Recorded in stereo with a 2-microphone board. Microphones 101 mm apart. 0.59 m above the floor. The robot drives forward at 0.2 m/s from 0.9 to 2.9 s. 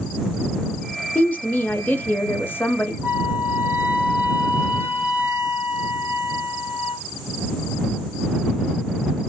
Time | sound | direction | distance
1.1 | a woman speaking | 15° left (ahead or behind) | 0.7 m
3.0 | a flute | 20° right (ahead or behind) | 1.4 m